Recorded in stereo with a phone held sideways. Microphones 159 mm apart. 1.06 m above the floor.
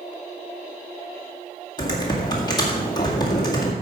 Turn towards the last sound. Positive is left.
turn(degrees=25)  # may be behind; listen again after turning